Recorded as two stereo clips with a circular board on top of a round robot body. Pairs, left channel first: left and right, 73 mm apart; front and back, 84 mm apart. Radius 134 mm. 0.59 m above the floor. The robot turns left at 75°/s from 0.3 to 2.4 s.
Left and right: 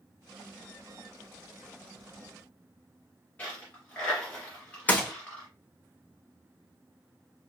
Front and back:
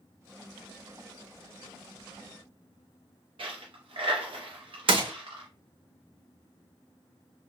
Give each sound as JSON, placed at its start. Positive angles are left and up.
{"t": 3.4, "sound": "a dropped coin", "azimuth_deg": 160, "distance_m": 0.6}
{"t": 4.9, "sound": "a gunshot", "azimuth_deg": 160, "distance_m": 0.6}